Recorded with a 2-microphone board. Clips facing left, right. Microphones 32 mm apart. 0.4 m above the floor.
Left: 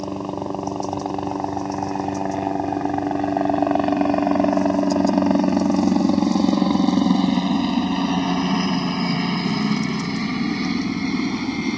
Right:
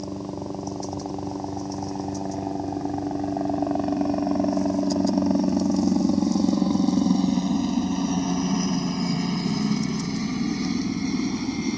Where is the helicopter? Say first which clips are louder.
Left 5 dB; 65° left (ahead or behind); by 11.8 s 30° left (ahead or behind).